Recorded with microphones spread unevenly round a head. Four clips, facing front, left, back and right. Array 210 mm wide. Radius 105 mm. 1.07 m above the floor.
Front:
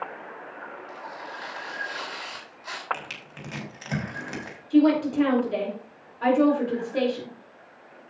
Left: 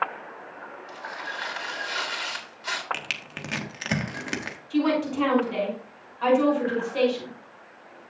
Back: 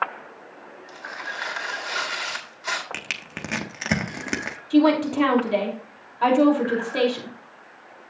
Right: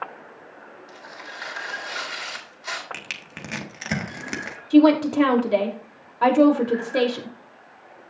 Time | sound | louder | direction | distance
0.9 | tearing paper | left 5 dB, back 2 dB | 175° left | 3 m
2.9 | crushing | left 2 dB, back 3 dB | 175° left | 1.5 m
4.7 | a woman speaking | right 9 dB, back 1 dB | 100° right | 3 m